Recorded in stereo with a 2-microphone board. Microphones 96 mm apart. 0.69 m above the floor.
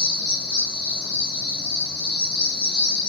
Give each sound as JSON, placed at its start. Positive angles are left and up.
{"t": 0.0, "sound": "an insect", "side_deg": 15, "distance_m": 1.0}